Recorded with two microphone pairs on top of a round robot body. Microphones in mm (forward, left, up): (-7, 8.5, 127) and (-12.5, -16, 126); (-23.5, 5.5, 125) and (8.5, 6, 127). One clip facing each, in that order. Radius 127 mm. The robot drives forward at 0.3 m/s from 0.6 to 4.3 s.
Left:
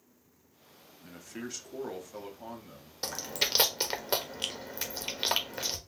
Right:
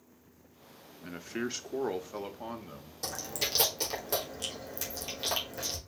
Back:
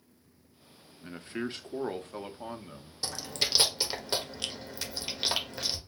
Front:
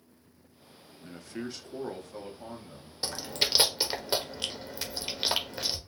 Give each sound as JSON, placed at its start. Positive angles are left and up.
{"t": 1.0, "sound": "a man speaking", "azimuth_deg": -140, "distance_m": 0.8}
{"t": 3.0, "sound": "chewing", "azimuth_deg": 60, "distance_m": 1.5}